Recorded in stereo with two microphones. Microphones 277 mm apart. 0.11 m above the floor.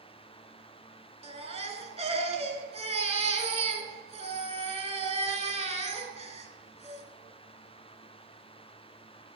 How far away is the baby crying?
About 0.7 m.